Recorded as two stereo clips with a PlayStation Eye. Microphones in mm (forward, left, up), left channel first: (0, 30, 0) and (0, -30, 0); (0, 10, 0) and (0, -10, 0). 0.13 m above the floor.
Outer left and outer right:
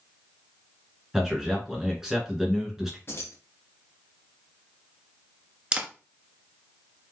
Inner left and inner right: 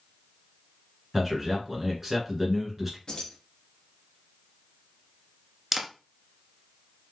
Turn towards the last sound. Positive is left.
turn(degrees=-20)  # may be behind; listen again after turning